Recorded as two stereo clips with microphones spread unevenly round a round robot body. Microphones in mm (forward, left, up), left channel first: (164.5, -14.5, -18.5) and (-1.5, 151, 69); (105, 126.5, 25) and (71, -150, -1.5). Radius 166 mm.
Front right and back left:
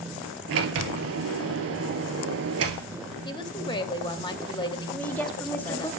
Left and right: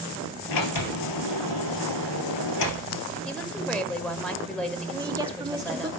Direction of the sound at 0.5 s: 115° left.